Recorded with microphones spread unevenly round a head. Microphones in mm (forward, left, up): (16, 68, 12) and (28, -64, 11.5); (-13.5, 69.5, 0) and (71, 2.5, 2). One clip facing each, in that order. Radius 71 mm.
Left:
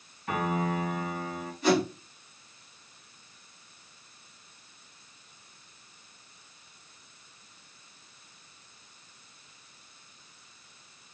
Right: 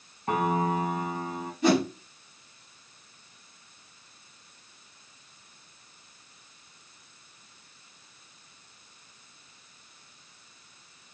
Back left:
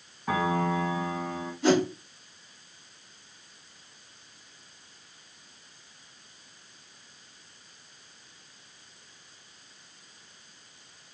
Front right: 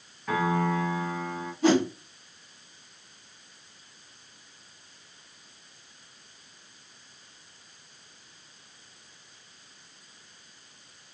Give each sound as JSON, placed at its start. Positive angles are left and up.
{"t": 0.3, "sound": "a piano", "azimuth_deg": -145, "distance_m": 1.4}
{"t": 1.6, "sound": "a whoosh", "azimuth_deg": -100, "distance_m": 3.5}